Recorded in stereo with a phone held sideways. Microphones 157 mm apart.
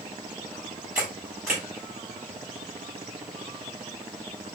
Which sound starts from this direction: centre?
A camera shutter, at 0.9 s.